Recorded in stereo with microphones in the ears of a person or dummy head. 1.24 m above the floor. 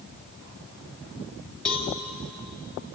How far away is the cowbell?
About 3 m.